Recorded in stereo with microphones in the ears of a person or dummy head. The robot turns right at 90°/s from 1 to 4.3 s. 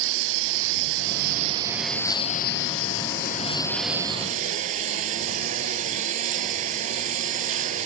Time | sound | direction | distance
0.0 | a lawn mower | 75° right | ?